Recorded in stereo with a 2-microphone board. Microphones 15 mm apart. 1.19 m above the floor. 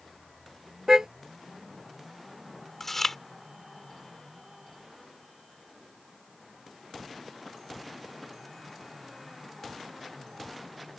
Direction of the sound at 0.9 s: 40° right (ahead or behind).